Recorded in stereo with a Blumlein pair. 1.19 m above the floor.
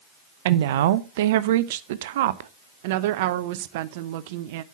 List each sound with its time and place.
0.5 s a woman speaking: 55° right, 0.8 m
2.8 s a woman speaking: 50° right, 0.8 m